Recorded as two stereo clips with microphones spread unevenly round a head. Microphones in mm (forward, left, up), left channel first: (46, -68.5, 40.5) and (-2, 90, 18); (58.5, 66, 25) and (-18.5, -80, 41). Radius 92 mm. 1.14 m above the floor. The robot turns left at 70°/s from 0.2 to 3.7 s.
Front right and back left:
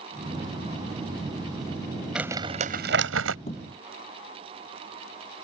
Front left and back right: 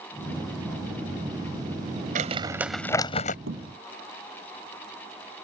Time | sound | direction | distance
2.1 | crumpling | 165° right | ?
3.5 | a thud | 130° right | ?